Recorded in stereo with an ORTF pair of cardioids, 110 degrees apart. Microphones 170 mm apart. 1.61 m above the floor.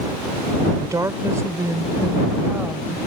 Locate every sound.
0.7 s a woman speaking: 20° right; by 3.0 s 10° right